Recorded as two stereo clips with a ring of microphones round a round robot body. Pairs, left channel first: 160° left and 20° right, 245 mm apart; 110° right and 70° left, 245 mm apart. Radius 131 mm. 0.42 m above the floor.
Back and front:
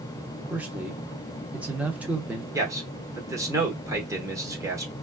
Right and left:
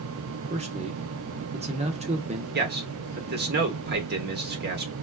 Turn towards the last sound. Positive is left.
turn(degrees=50)